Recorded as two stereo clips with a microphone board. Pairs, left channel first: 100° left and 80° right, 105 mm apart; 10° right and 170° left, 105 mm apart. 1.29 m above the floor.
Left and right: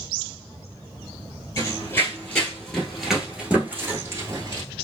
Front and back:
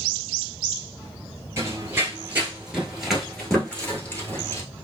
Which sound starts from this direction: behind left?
Running footsteps, at 1.6 s.